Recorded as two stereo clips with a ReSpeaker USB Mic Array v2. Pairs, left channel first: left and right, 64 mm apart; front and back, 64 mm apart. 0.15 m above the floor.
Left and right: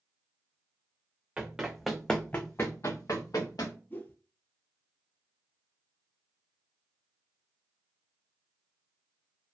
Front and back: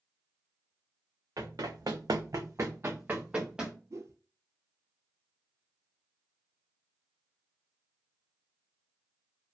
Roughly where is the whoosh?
Behind left.